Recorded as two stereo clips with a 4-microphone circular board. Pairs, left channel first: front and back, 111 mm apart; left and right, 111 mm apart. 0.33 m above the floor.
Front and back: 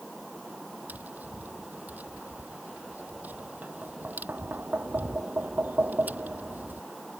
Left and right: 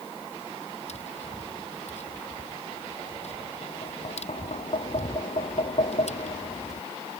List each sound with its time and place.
0.9 s tapping: 105° left